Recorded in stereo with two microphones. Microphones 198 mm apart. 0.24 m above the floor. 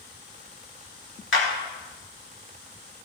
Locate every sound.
1.3 s a clap: 70° left (ahead or behind), 3.5 m